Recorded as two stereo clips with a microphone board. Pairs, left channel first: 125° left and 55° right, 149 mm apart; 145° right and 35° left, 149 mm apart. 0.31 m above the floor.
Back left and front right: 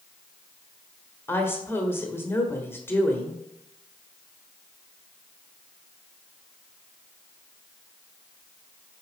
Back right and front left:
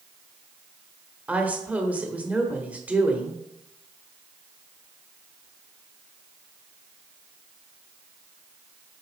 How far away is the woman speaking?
About 1.2 m.